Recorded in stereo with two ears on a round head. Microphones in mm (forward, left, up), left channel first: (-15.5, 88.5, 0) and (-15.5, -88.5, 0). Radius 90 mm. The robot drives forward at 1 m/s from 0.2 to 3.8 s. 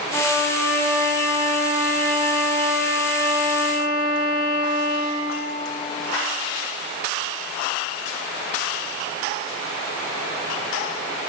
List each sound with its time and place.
0.1 s a violin: 5° left (ahead or behind), 1.6 m; by 5.2 s centre (ahead or behind), 5 m